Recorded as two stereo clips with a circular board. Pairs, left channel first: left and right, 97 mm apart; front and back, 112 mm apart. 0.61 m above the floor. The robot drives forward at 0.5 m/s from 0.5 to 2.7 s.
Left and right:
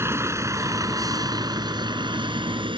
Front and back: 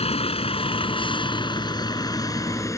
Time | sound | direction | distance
0.0 | a vehicle | 25° right | ?